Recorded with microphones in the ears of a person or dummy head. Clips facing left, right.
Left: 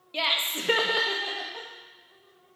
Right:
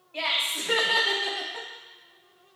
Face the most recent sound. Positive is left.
turn(degrees=-25)  # may be behind; listen again after turning